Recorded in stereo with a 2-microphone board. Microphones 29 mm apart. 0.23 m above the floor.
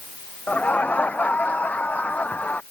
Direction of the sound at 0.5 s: 60° left (ahead or behind).